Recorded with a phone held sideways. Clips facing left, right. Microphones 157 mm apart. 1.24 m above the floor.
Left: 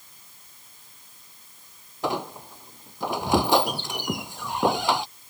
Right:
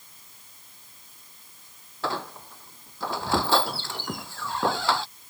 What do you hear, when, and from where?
2.0 s a squeak: 15° left (ahead or behind)